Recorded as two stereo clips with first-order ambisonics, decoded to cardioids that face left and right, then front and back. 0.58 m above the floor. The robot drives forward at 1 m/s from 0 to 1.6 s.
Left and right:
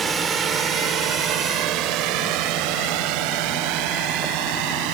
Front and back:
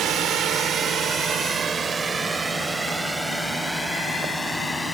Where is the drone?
150° right; by 5.0 s 80° right.